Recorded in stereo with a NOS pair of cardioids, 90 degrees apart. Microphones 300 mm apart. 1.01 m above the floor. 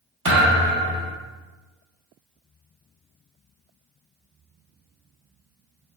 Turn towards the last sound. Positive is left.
turn(degrees=-40)